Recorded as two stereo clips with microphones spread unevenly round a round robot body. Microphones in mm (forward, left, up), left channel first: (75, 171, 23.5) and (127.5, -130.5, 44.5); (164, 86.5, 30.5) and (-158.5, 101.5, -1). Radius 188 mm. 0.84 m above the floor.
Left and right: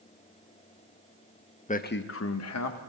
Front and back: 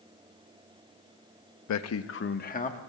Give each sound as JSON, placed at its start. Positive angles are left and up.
{"t": 1.7, "sound": "a man speaking", "azimuth_deg": 35, "distance_m": 0.8}